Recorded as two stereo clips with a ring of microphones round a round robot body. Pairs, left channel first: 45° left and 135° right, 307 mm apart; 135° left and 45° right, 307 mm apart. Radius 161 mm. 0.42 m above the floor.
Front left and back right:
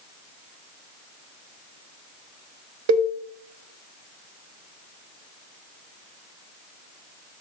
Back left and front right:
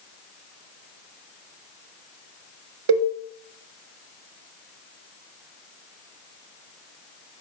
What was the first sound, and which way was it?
A cowbell, 90° right.